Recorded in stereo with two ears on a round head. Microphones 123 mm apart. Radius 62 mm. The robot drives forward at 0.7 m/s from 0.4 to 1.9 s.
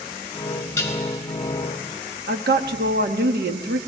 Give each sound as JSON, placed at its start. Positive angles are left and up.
{"t": 0.8, "sound": "dishes clattering", "side_deg": 15, "distance_m": 4.0}
{"t": 2.3, "sound": "a woman speaking", "side_deg": -85, "distance_m": 1.6}